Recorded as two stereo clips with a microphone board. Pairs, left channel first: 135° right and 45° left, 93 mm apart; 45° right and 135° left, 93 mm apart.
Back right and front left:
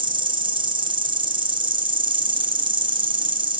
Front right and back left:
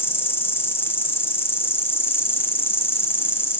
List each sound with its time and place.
0.0 s an insect: 20° left, 1.8 m